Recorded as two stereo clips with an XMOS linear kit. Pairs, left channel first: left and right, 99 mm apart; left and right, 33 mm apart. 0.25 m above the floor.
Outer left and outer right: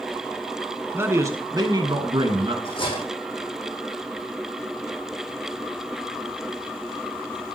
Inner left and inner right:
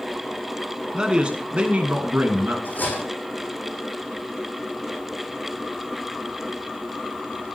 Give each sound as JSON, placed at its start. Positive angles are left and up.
{"t": 0.9, "sound": "a man speaking", "side_deg": -25, "distance_m": 2.0}
{"t": 2.6, "sound": "cutlery clinking", "side_deg": 60, "distance_m": 7.5}